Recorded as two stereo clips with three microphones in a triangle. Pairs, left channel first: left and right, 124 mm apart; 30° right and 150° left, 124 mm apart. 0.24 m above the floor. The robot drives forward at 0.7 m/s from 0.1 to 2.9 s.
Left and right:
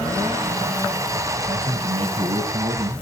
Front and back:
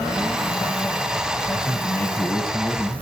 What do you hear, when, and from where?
1.5 s a man speaking: 80° right, 1.6 m; by 2.9 s 125° right, 1.8 m